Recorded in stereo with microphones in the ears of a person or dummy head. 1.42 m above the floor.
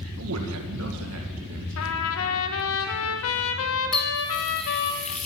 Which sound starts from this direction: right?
A man speaking, at 0.2 s.